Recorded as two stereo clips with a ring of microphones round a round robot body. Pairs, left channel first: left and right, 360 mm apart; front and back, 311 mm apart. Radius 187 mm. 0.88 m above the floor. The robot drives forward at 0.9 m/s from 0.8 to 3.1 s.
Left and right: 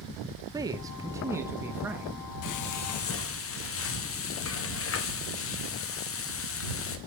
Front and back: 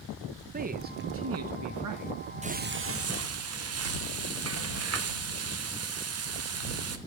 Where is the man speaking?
160° right, 1.0 m; by 2.1 s 175° right, 1.9 m.